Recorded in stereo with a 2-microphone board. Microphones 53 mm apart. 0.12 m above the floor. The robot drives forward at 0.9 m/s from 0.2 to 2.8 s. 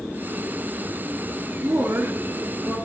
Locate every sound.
1.6 s a woman speaking: 45° right (ahead or behind), 1.6 m; by 2.8 s 40° right (ahead or behind), 1.7 m